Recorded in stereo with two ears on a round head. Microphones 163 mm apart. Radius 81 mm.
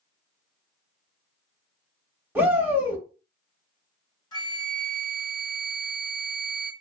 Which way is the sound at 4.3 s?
25° left (ahead or behind).